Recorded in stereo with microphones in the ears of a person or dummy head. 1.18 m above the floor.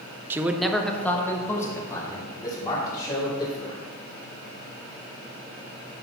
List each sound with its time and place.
0.3 s a man speaking: 10° right (ahead or behind), 0.7 m; by 3.8 s 30° left (ahead or behind), 3.5 m